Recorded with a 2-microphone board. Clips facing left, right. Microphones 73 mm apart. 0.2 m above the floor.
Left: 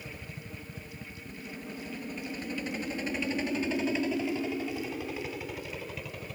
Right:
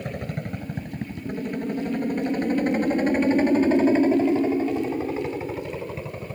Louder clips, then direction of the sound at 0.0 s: Right 13 dB; 65° right (ahead or behind).